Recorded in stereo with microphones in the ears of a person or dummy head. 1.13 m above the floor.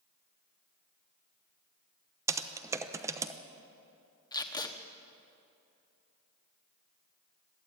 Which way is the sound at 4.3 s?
20° left (ahead or behind).